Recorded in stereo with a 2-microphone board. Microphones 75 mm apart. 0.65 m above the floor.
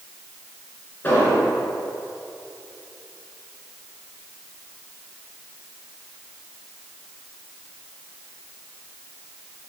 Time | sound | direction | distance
1.0 | an explosion | 25° left (ahead or behind) | 3.5 m